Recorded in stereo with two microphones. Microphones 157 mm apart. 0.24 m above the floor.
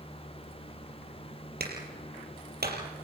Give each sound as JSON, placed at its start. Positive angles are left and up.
{"t": 1.6, "sound": "a clap", "side_deg": -75, "distance_m": 4.0}